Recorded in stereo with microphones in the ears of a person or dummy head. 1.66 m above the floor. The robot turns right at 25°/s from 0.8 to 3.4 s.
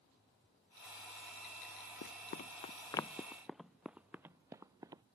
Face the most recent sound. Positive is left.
turn(degrees=-20)  # may be behind; listen again after turning